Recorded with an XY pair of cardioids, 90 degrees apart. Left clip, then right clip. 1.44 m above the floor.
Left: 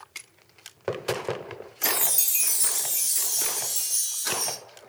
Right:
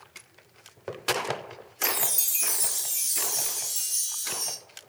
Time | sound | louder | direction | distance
1.8 | a chime | left 2 dB | 20° left | 0.6 m